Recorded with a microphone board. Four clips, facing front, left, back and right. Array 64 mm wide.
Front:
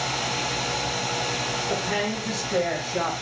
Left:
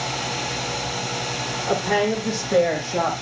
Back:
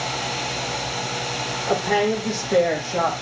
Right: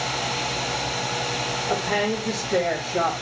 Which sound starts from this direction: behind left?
A woman speaking, at 1.7 s.